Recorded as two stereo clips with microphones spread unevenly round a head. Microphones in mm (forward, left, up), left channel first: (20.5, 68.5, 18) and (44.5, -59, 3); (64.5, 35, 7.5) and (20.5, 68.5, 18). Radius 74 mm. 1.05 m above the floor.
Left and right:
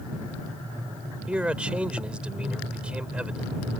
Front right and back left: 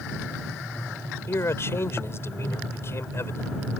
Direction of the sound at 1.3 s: 5° left.